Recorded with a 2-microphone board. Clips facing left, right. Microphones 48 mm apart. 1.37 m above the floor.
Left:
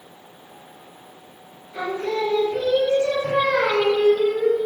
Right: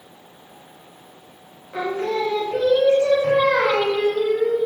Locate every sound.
1.7 s singing: 85° right, 0.8 m